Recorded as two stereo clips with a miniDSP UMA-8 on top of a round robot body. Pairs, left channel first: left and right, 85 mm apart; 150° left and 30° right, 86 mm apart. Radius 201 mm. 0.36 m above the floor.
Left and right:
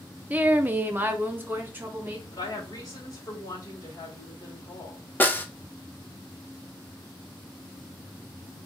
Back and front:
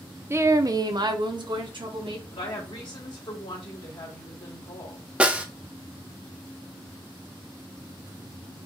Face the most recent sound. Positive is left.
turn(degrees=40)